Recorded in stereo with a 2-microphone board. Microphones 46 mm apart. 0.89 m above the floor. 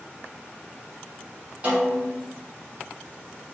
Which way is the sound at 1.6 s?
35° right (ahead or behind).